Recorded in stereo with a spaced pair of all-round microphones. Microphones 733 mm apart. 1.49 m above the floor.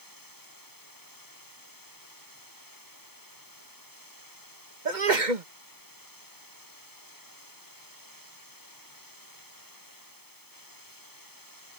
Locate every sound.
0.0 s running water: 25° left (ahead or behind)
4.8 s a sneeze: 80° right